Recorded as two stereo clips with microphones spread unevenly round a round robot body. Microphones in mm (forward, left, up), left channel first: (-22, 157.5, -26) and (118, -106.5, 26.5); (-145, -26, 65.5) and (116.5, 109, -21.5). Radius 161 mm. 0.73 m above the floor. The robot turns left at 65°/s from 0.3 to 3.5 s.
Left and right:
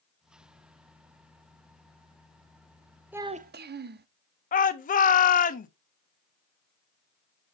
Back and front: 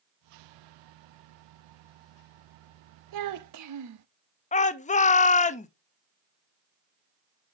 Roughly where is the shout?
Behind left.